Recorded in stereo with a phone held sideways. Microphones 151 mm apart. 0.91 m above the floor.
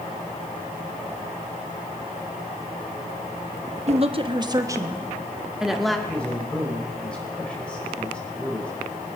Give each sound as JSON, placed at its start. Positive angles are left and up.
{"t": 3.9, "sound": "a woman speaking", "side_deg": -45, "distance_m": 1.0}
{"t": 6.1, "sound": "a man speaking", "side_deg": 5, "distance_m": 4.5}